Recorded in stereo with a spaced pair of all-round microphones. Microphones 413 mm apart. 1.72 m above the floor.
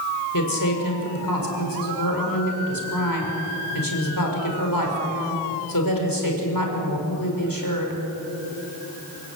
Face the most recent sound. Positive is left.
turn(degrees=55)  # may be behind; listen again after turning